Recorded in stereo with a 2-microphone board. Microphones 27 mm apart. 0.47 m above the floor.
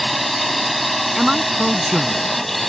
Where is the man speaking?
15° right (ahead or behind).